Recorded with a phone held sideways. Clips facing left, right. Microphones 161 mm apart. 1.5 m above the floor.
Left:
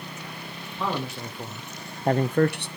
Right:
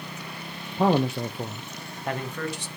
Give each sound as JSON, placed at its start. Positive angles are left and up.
{"t": 0.8, "sound": "a man speaking", "side_deg": -45, "distance_m": 0.9}